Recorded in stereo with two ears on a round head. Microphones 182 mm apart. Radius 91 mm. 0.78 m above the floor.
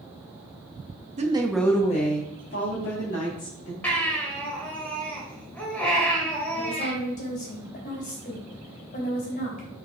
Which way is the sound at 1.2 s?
35° right (ahead or behind).